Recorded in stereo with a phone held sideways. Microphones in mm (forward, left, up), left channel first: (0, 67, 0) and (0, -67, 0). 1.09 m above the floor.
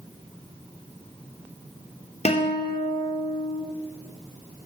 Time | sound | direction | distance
2.2 | a guitar | 55° left (ahead or behind) | 2.5 m